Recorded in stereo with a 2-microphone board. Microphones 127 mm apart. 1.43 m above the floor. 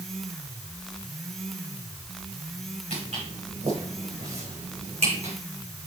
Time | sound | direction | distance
2.9 | footsteps | 75° right (ahead or behind) | 5.5 m